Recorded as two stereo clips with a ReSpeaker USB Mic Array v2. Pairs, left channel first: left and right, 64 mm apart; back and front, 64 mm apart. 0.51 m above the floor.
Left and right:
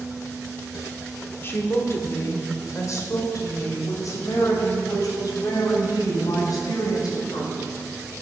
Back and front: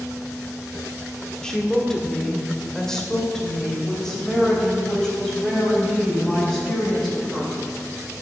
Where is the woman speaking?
105° left, 1.5 m; by 7.6 s 95° left, 5 m.